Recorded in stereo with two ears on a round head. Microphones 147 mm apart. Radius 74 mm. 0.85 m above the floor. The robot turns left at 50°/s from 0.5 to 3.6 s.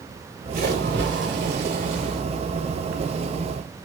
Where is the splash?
55° right, 3 m; by 2.2 s 140° right, 3 m.